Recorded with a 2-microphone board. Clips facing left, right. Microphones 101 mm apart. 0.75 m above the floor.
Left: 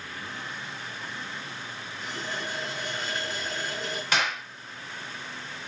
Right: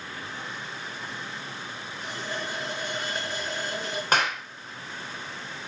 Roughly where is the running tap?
Centre.